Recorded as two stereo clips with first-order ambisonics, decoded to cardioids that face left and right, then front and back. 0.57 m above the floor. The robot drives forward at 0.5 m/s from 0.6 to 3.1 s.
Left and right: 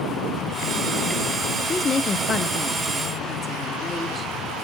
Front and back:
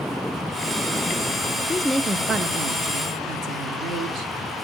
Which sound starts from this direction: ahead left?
A woman speaking, at 1.7 s.